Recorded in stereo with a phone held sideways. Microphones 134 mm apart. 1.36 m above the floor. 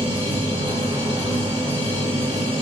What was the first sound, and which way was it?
A machine running, 45° right (ahead or behind).